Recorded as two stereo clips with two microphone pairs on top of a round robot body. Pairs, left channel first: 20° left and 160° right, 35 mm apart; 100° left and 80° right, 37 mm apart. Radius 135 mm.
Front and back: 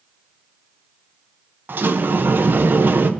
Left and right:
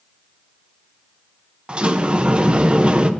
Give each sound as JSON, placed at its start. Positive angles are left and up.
{"t": 1.7, "sound": "a sliding door", "azimuth_deg": -145, "distance_m": 0.8}